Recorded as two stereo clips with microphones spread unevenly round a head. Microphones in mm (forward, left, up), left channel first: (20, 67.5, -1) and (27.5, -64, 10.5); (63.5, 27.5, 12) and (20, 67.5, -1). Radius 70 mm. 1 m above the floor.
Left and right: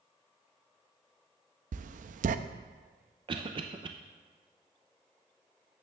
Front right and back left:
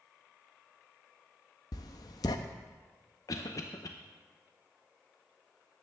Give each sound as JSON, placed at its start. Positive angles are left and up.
{"t": 1.7, "sound": "writing", "azimuth_deg": -60, "distance_m": 0.6}
{"t": 3.3, "sound": "a cough", "azimuth_deg": -45, "distance_m": 0.6}